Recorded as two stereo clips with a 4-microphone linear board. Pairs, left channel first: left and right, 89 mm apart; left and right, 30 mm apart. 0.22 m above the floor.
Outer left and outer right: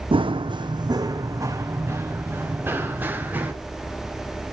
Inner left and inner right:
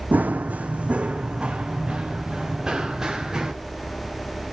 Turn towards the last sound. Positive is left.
turn(degrees=-20)  # may be behind; listen again after turning